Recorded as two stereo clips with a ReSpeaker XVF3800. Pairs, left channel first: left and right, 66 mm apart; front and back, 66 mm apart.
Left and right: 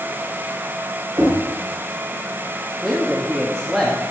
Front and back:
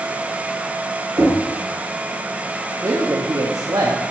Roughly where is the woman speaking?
Behind.